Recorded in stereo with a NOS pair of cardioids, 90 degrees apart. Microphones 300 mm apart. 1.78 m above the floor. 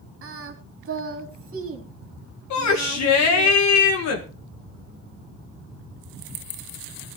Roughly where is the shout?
Ahead left.